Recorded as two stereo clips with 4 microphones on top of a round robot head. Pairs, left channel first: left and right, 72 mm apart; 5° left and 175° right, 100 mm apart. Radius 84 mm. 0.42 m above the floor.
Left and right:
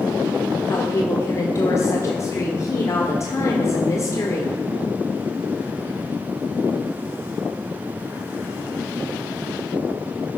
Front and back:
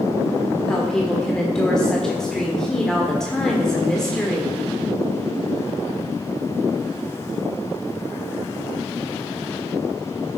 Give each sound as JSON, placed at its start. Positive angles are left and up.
{"t": 0.7, "sound": "a woman speaking", "azimuth_deg": 85, "distance_m": 1.7}